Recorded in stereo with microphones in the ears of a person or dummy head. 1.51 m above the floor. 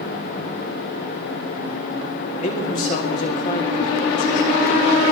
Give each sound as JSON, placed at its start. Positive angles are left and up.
{"t": 2.4, "sound": "a man speaking", "side_deg": 50, "distance_m": 2.5}